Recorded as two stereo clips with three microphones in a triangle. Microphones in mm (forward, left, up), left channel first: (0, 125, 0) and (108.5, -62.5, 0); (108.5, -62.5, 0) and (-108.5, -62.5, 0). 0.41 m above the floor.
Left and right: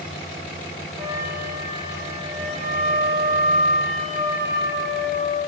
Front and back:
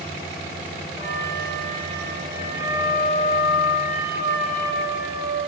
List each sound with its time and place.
1.0 s a flute: 120° right, 10 m